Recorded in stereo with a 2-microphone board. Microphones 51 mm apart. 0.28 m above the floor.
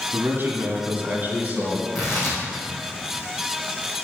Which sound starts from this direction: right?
A man speaking, at 0.1 s.